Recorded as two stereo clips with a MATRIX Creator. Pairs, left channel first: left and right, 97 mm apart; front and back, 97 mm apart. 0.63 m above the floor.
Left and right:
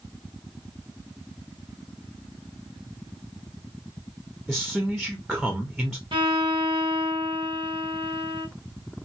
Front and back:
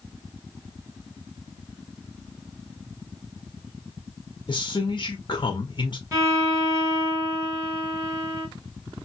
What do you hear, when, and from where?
4.5 s a man speaking: straight ahead, 1.0 m
6.1 s a violin: 120° right, 1.8 m